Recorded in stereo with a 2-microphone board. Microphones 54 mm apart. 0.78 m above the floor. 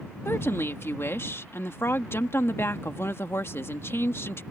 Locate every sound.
0.2 s a woman speaking: 50° left (ahead or behind)